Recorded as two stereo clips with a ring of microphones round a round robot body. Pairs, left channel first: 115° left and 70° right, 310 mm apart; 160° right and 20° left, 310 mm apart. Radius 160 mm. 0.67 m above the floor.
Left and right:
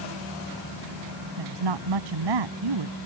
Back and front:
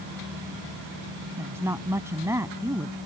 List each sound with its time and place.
1.4 s a woman speaking: 60° right